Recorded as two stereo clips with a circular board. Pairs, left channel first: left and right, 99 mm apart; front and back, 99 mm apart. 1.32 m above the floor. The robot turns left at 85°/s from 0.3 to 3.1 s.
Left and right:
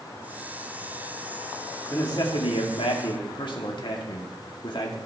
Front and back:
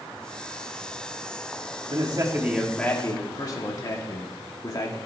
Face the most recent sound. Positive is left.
turn(degrees=55)